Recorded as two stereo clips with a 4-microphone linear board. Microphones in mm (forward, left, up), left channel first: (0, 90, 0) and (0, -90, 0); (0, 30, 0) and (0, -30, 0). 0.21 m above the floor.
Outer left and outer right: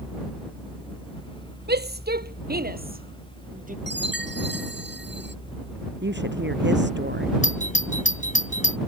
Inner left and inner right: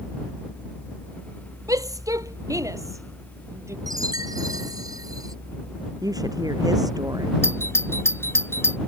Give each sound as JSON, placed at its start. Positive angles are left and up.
{"t": 1.7, "sound": "a shout", "side_deg": -65}
{"t": 3.9, "sound": "a chime", "side_deg": -80}
{"t": 6.0, "sound": "a woman speaking", "side_deg": -85}
{"t": 7.4, "sound": "a doorbell", "side_deg": 45}